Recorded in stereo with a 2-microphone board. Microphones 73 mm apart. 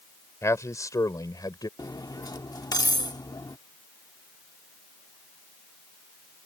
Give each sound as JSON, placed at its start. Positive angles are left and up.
{"t": 0.4, "sound": "a man speaking", "side_deg": 40}
{"t": 1.8, "sound": "cutlery clinking", "side_deg": 65}